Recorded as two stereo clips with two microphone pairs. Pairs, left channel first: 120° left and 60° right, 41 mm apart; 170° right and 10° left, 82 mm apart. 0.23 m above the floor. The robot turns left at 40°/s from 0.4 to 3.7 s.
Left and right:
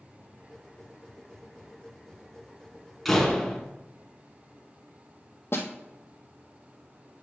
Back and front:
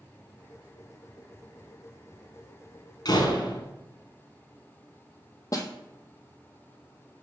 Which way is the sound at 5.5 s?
140° left.